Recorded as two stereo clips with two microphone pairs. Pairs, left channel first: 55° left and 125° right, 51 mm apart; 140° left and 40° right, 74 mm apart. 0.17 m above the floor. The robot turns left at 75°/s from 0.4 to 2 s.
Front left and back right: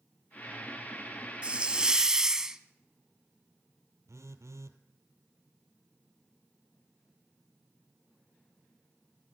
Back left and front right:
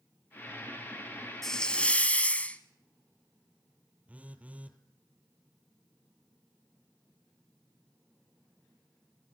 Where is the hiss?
145° right, 0.8 m; by 2.6 s 170° left, 0.8 m.